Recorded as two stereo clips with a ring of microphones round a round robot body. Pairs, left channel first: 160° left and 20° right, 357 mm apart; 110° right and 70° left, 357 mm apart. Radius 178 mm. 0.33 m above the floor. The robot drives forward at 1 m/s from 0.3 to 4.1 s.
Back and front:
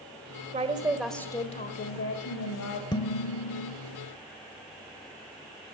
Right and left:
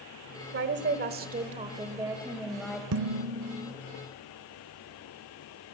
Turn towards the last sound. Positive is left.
turn(degrees=150)